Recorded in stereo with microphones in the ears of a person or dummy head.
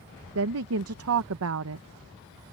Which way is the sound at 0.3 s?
75° right (ahead or behind).